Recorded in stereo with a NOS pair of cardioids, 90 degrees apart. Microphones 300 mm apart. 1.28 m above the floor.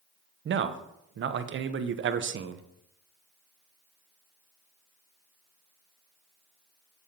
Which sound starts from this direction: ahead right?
A man speaking, at 0.5 s.